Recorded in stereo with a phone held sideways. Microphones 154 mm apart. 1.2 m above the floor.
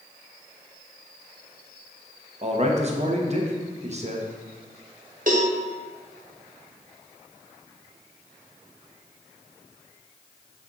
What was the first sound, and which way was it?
A man speaking, 45° right (ahead or behind).